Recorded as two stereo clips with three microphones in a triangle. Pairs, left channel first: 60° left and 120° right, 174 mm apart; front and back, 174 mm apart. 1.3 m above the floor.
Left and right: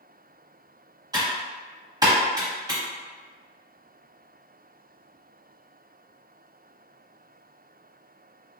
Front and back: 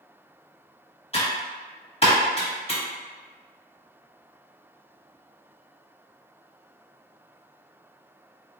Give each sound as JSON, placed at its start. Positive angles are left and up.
{"t": 1.1, "sound": "typing on a keyboard", "azimuth_deg": -55, "distance_m": 1.2}